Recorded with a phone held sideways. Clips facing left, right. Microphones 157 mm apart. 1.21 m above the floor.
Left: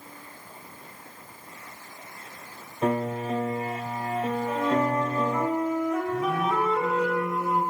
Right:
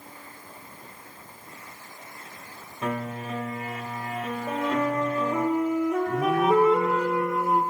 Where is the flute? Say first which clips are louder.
Even; 70° right (ahead or behind), 7.5 m.